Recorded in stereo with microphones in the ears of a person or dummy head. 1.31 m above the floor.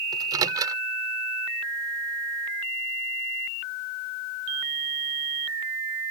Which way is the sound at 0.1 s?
20° right (ahead or behind).